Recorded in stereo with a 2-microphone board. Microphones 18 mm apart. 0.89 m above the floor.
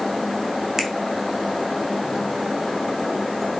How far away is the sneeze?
I don't hear a sneeze.